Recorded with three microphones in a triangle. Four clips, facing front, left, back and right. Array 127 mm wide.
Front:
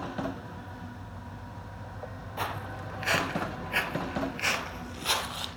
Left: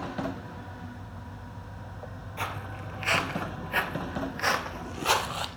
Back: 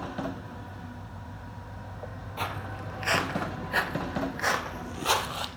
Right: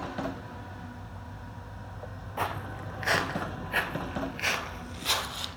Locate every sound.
2.4 s footsteps: 85° right, 1.1 m; by 5.5 s 125° left, 1.3 m